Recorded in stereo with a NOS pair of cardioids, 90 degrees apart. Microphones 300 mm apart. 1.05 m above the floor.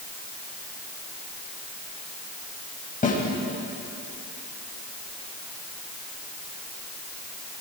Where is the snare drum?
25° left, 6.5 m.